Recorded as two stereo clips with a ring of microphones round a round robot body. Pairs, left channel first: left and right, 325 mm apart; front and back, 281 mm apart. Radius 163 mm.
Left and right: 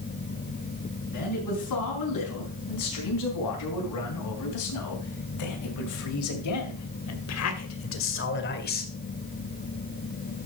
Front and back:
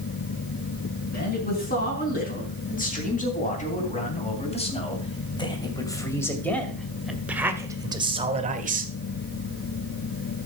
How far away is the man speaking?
About 5 m.